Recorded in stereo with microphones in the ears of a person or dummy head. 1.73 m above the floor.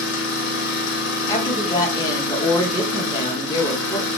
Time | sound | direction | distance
0.0 | an engine running | 75° left (ahead or behind) | 0.8 m
1.3 | a woman speaking | 20° left (ahead or behind) | 0.8 m